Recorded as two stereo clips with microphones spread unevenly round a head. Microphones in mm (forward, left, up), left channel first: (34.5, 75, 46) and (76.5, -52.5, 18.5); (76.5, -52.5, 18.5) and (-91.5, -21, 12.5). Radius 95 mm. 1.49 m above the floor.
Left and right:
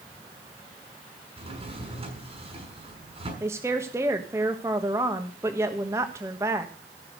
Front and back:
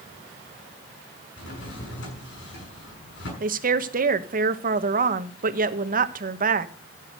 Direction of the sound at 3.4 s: 150° right.